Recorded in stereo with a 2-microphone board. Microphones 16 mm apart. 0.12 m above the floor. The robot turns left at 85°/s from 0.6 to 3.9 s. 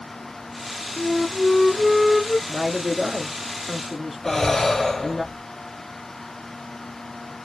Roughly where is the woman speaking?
Centre.